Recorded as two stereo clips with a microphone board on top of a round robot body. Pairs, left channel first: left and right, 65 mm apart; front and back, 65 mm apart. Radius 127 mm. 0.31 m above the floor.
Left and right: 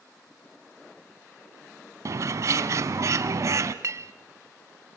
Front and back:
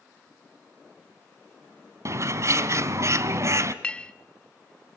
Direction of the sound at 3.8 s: 70° right.